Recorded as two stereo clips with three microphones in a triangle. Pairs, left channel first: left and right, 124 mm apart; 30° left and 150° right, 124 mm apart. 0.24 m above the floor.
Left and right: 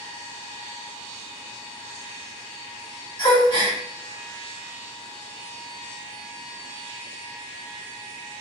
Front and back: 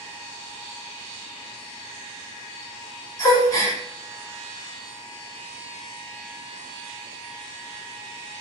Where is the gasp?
70° left, 1.5 m.